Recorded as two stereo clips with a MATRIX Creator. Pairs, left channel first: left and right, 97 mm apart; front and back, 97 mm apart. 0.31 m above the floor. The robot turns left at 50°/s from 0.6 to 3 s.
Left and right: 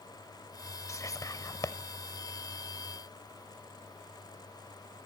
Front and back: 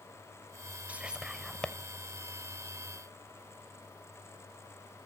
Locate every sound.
0.9 s whispering: 115° left, 1.0 m; by 1.8 s 75° left, 1.0 m